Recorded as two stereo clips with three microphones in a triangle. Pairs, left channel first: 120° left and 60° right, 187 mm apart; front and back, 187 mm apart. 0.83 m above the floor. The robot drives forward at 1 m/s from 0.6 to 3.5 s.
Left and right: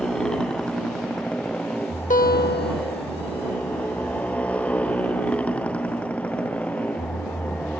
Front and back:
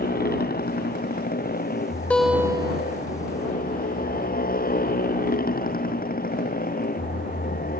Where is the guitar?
80° left; by 3.1 s 140° left.